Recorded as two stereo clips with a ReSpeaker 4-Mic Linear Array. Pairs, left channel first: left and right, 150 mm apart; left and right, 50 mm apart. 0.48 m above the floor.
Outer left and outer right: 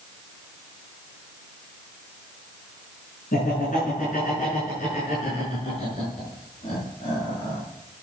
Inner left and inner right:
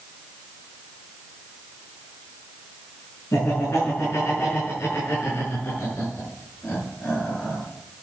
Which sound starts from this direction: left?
Laughter, at 3.3 s.